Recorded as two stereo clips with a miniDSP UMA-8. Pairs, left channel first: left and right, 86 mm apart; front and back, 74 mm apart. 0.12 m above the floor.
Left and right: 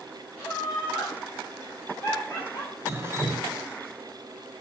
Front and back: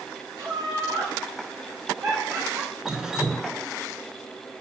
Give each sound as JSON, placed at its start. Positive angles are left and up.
{"t": 0.4, "sound": "laughter", "azimuth_deg": 170, "distance_m": 3.0}
{"t": 2.9, "sound": "dripping", "azimuth_deg": -105, "distance_m": 0.9}